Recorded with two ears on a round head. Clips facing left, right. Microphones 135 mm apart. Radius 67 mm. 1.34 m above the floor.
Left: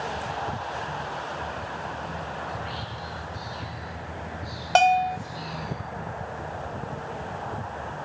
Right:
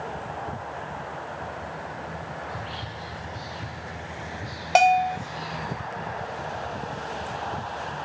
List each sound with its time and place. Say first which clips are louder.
2.5 s whispering: left 1 dB; 5° left (ahead or behind), 3.5 m
4.8 s a bell: right 1 dB; 10° right (ahead or behind), 0.9 m